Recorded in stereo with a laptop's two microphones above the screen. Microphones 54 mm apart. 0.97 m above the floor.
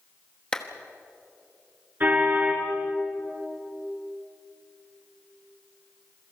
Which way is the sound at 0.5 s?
15° left (ahead or behind).